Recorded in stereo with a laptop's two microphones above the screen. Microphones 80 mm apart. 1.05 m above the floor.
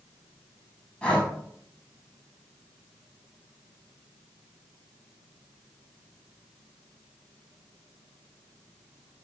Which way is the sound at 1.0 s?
15° left (ahead or behind).